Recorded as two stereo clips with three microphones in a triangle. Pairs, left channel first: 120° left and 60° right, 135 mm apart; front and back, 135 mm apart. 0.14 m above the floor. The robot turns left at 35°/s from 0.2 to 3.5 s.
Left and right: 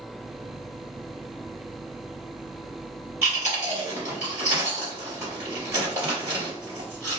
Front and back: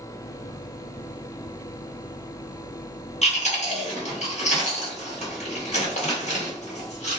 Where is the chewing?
15° left, 1.8 m; by 7.2 s 5° left, 1.8 m.